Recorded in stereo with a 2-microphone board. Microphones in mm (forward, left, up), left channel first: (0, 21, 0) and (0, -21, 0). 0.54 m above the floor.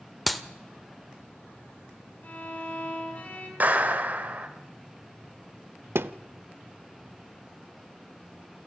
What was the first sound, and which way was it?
A clap, centre (ahead or behind).